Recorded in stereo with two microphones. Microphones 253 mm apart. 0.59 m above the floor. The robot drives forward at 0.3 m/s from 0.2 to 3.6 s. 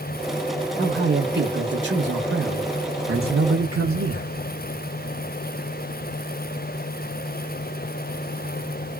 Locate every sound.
0.8 s a man speaking: 40° right (ahead or behind), 1.4 m; by 4.3 s 55° right (ahead or behind), 1.0 m